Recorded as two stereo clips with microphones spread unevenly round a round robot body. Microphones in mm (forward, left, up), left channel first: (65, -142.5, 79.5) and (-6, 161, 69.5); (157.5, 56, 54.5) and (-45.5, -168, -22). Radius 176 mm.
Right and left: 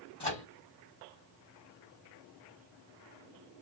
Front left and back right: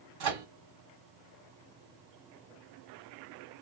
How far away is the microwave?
About 1.5 m.